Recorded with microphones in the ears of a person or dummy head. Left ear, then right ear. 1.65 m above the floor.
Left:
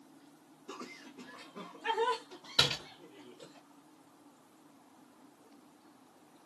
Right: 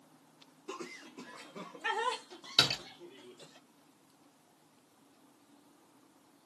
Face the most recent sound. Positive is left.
turn(degrees=-35)  # may be behind; listen again after turning